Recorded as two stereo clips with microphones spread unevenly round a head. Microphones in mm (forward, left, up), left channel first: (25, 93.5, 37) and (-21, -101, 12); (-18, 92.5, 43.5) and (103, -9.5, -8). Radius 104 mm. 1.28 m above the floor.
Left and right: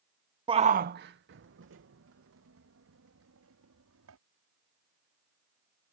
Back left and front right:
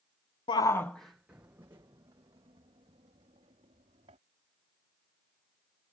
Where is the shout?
150° right; by 4.2 s 105° right.